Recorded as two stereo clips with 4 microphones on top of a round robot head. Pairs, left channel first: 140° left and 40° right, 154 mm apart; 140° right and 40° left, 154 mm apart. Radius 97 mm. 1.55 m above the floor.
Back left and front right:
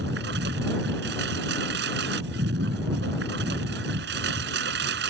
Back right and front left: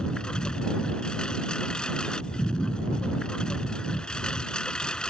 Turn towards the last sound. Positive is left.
turn(degrees=-55)